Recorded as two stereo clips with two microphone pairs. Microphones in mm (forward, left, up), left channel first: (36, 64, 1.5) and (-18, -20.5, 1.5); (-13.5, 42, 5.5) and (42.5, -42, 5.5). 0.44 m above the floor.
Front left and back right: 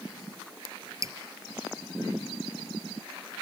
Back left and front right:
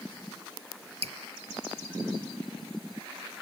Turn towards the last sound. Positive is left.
turn(degrees=-65)